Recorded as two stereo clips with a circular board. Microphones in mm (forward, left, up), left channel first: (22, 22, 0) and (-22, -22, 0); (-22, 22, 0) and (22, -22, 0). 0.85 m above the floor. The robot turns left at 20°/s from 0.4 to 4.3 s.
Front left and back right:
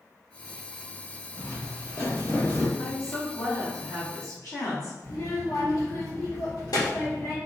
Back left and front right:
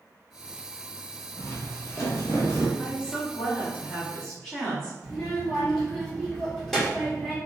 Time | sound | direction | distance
1.4 | footsteps | 95° left | 1.9 m
2.8 | a woman speaking | 85° left | 1.9 m
5.0 | a child speaking | 50° left | 1.6 m